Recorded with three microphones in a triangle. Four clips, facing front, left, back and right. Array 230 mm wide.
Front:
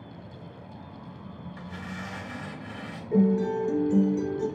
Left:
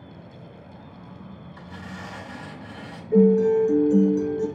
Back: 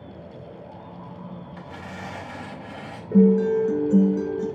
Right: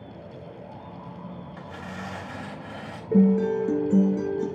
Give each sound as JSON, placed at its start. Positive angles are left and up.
{"t": 1.6, "sound": "tearing paper", "azimuth_deg": -125, "distance_m": 5.0}
{"t": 3.1, "sound": "a guitar", "azimuth_deg": -105, "distance_m": 2.5}